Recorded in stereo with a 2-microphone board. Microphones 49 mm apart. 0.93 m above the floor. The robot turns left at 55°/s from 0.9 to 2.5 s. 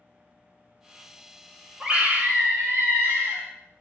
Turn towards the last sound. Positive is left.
turn(degrees=-55)